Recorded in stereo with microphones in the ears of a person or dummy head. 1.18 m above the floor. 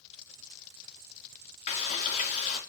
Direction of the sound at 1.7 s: 45° left (ahead or behind).